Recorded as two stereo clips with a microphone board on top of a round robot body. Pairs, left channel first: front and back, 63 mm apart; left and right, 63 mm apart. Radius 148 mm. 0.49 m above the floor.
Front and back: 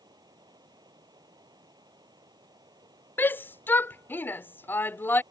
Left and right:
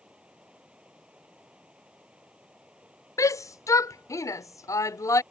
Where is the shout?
60° left.